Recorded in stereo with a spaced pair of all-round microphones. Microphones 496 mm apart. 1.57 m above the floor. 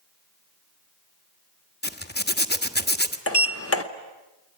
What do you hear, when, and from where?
1.8 s a zipper: 20° left (ahead or behind), 1.2 m
3.3 s a sliding door: 25° left (ahead or behind), 1.1 m